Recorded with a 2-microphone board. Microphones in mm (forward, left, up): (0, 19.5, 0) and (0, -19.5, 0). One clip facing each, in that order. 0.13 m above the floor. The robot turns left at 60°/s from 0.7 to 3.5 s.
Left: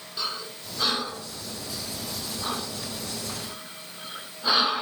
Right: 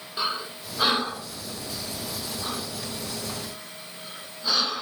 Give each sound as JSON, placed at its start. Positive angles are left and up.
{"t": 0.2, "sound": "breathing", "side_deg": -25, "distance_m": 1.5}